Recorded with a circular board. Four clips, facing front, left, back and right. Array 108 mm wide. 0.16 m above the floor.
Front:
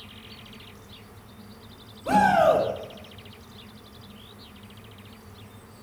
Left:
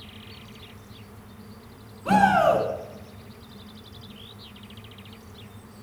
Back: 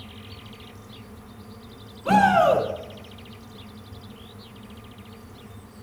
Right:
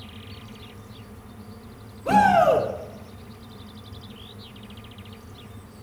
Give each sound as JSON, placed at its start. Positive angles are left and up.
{"t": 2.0, "sound": "a shout", "azimuth_deg": 145, "distance_m": 2.0}